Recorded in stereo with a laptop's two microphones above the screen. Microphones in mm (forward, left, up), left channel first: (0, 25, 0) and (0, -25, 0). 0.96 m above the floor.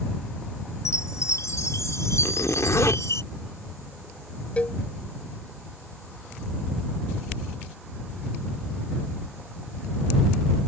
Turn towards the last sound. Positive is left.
turn(degrees=25)  # may be behind; listen again after turning